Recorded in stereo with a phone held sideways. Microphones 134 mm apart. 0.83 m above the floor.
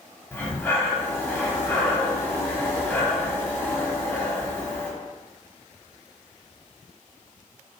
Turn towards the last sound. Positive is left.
turn(degrees=15)  # may be behind; listen again after turning